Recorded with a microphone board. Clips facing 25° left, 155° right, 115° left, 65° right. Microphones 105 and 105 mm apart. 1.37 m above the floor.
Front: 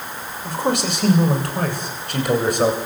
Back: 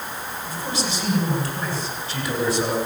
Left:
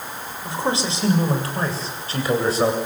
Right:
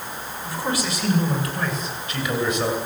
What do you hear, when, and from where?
0.5 s a man speaking: 45° left, 6.5 m; by 2.8 s 60° left, 9 m